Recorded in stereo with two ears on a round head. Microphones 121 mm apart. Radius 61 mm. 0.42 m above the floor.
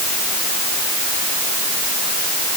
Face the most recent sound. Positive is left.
No sound to turn to.